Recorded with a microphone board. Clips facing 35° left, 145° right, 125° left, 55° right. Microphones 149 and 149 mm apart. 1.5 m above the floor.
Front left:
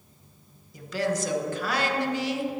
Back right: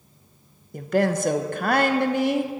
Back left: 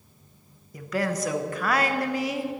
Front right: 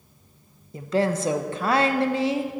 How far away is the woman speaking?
About 1.0 m.